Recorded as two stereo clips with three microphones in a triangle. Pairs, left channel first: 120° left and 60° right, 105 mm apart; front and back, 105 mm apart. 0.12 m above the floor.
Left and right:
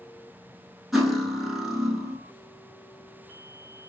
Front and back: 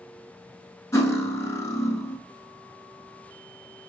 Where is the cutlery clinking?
25° left, 0.7 m.